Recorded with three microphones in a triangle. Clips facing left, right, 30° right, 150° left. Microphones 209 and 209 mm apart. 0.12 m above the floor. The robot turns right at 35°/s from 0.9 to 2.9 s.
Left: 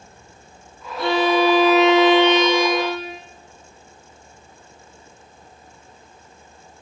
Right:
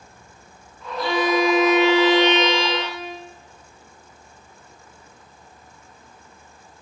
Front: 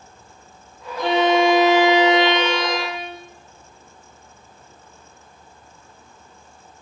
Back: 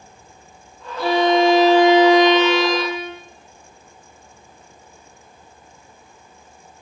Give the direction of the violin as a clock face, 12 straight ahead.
10 o'clock.